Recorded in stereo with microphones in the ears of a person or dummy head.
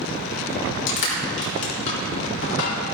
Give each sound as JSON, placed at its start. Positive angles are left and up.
{"t": 0.9, "sound": "crushing", "side_deg": 70, "distance_m": 4.0}